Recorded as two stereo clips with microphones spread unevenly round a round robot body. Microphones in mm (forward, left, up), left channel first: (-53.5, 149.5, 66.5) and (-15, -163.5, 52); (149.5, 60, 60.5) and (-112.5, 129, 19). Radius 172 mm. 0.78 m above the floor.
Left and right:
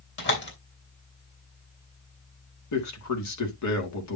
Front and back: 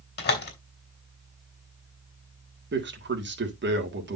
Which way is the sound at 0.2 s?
40° left.